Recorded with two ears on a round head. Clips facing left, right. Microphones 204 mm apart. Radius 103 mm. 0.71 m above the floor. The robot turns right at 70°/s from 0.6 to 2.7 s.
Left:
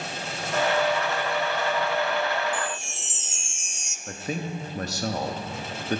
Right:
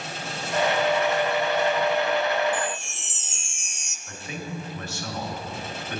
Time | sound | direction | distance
2.5 | a chime | 40° right (ahead or behind) | 0.6 m
4.1 | a man speaking | 35° left (ahead or behind) | 0.9 m